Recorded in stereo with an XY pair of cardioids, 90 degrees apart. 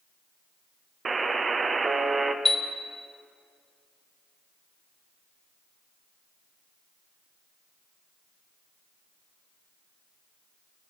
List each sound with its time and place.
1.1 s a buzzer: 35° right, 0.6 m
2.5 s a chime: 10° left, 0.8 m